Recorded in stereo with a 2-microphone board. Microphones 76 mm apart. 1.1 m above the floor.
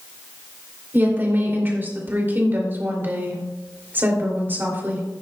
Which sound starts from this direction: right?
A woman speaking, at 0.9 s.